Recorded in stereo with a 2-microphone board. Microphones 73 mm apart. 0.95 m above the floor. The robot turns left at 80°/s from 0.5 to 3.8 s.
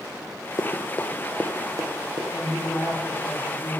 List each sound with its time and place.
0.6 s running footsteps: 50° left (ahead or behind), 1.8 m; by 2.2 s 75° right (ahead or behind), 3.5 m
2.3 s a woman speaking: 165° left, 3.5 m; by 3.8 s 45° left, 3.5 m